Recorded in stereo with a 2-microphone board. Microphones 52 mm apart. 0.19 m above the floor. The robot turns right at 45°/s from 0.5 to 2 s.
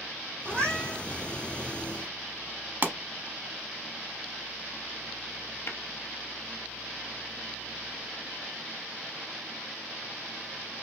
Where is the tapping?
55° left (ahead or behind), 0.7 m.